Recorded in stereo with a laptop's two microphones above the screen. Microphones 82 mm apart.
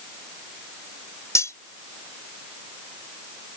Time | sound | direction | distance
1.4 | cutlery clinking | 35° left (ahead or behind) | ?